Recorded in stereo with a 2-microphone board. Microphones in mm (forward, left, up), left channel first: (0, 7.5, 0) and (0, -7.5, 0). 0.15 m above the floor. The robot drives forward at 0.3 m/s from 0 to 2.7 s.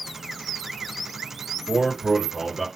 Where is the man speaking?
35° left (ahead or behind), 2.5 m.